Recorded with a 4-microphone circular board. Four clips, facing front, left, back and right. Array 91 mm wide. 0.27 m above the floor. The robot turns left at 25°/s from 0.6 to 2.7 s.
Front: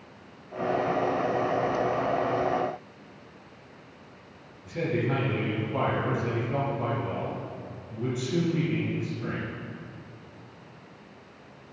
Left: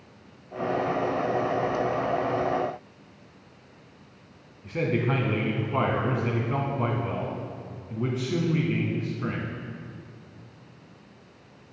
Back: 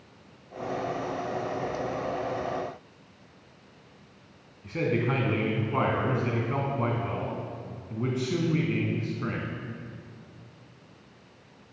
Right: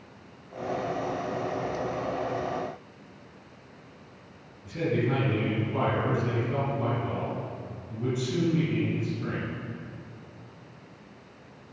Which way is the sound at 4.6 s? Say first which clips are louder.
Left 1 dB, back 1 dB; 135° left.